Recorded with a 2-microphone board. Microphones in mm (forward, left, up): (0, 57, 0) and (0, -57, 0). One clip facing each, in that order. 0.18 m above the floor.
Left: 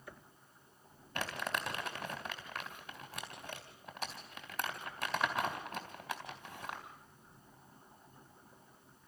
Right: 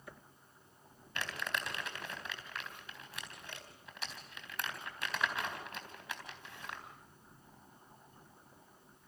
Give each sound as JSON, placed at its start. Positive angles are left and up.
{"t": 1.1, "sound": "crumpling", "side_deg": 40, "distance_m": 3.5}